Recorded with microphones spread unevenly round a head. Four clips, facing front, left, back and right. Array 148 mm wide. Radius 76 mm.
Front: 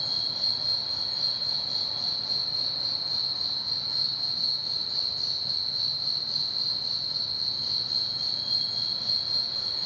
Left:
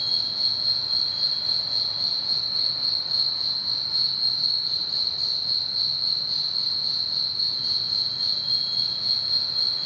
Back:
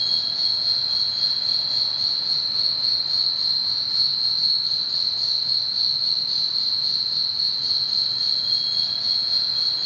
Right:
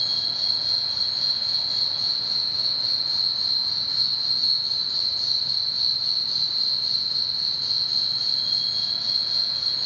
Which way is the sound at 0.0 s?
125° right.